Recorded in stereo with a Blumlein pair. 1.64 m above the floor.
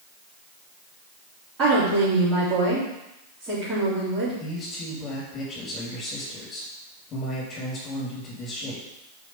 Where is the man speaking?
30° left, 3.5 m.